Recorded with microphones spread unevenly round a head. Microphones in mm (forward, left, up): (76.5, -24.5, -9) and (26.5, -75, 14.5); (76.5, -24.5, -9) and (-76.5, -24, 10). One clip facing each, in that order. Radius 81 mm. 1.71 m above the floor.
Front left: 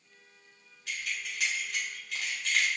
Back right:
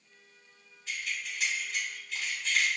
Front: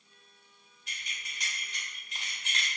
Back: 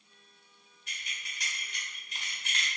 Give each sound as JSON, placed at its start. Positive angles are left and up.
{"t": 0.9, "sound": "keys jangling", "azimuth_deg": 20, "distance_m": 1.3}